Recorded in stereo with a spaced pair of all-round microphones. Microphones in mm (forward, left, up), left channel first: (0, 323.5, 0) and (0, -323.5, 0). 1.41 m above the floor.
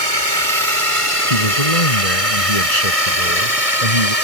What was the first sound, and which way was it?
A drone, 50° right (ahead or behind).